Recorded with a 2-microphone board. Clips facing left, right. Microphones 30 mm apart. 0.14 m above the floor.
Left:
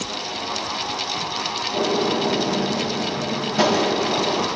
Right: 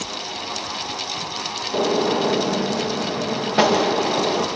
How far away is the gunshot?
About 5 m.